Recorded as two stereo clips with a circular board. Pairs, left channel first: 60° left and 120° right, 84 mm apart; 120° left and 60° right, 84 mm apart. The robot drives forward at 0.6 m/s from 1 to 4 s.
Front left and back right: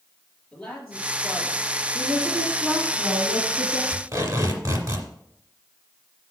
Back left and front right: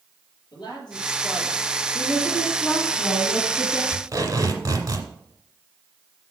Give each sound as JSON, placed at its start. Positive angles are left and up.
{"t": 0.5, "sound": "a man speaking", "azimuth_deg": 150, "distance_m": 4.5}
{"t": 1.9, "sound": "a woman speaking", "azimuth_deg": 165, "distance_m": 1.3}
{"t": 3.9, "sound": "tape being pulled", "azimuth_deg": -95, "distance_m": 2.0}